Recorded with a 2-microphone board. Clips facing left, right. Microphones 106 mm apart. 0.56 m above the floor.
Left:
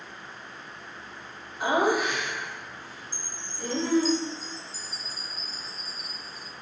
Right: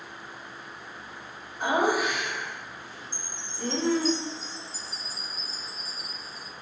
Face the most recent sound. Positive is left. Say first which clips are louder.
# right 1 dB
turn(degrees=45)  # may be behind; listen again after turning